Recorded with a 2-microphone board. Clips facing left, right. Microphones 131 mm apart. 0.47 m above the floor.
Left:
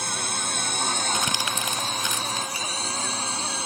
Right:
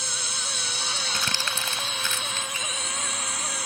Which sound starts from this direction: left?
A drone, at 0.0 s.